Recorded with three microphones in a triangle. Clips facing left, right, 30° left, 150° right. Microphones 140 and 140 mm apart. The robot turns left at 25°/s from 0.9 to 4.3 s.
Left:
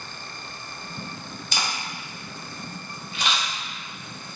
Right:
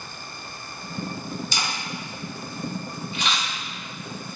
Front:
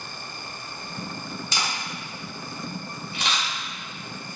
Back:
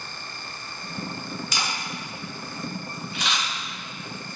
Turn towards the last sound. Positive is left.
turn(degrees=15)